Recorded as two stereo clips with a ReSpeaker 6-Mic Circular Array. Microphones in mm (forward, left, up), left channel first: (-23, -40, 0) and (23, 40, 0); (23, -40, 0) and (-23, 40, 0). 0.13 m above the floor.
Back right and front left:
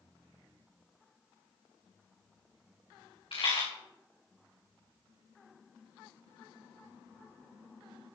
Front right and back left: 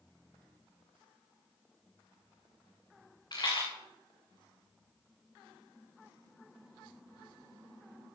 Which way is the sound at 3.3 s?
100° right.